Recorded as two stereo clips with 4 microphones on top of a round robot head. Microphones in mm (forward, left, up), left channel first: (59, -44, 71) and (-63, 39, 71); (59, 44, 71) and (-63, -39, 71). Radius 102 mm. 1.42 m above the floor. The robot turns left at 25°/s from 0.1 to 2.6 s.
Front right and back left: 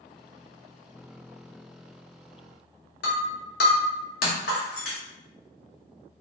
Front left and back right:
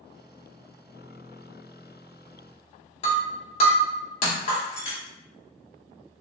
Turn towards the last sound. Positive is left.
turn(degrees=-15)